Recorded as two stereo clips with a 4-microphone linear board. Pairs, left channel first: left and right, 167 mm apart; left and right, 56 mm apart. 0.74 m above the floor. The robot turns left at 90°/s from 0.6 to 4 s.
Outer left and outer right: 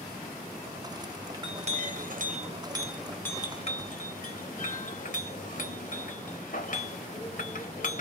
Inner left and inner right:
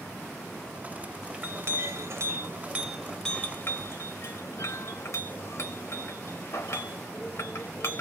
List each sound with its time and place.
1.3 s a clink: 20° right (ahead or behind), 0.7 m; by 8.0 s 55° left (ahead or behind), 0.7 m